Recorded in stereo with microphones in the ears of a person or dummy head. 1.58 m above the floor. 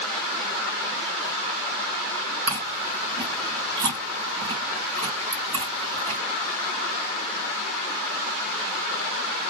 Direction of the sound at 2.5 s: 35° right (ahead or behind).